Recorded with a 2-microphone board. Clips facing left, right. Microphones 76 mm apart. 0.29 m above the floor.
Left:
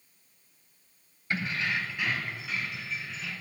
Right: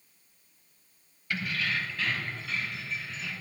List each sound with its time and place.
1.3 s keys jangling: 30° left (ahead or behind), 0.8 m; by 3.3 s centre (ahead or behind), 1.9 m